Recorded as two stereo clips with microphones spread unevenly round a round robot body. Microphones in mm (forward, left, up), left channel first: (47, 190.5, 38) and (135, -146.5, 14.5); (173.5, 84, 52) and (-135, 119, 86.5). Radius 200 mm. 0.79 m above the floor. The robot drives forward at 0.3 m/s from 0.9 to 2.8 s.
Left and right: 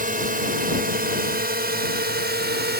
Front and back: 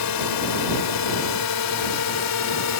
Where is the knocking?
No knocking in this recording.